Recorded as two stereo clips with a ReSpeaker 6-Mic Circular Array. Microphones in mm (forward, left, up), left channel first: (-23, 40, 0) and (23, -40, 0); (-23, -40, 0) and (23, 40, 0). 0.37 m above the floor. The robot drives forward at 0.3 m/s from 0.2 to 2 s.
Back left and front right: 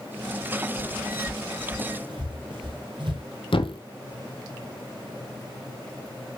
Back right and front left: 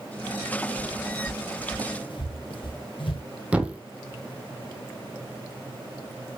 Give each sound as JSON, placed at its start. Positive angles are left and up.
{"t": 0.8, "sound": "footsteps", "azimuth_deg": -80, "distance_m": 6.0}
{"t": 3.5, "sound": "a thud", "azimuth_deg": 135, "distance_m": 1.2}